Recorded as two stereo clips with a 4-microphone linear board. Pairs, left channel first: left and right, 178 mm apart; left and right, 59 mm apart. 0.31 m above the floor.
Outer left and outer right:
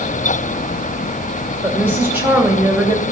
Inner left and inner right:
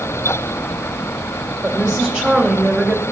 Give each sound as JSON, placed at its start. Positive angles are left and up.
{"t": 1.6, "sound": "a woman speaking", "side_deg": -15, "distance_m": 2.0}